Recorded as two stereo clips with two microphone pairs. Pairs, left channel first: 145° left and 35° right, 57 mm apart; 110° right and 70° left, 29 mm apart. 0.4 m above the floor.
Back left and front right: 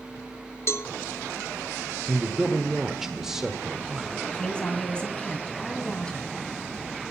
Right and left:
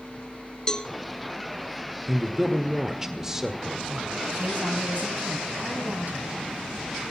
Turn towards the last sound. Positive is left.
turn(degrees=75)